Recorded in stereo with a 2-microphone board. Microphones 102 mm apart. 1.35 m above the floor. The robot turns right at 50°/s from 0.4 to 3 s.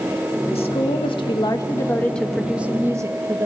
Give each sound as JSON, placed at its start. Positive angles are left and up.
{"t": 0.5, "sound": "a woman speaking", "azimuth_deg": 90, "distance_m": 2.0}